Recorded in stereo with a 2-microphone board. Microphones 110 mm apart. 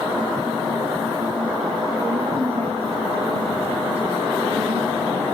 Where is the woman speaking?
65° right (ahead or behind), 5 m; by 5.2 s 70° right (ahead or behind), 6.5 m.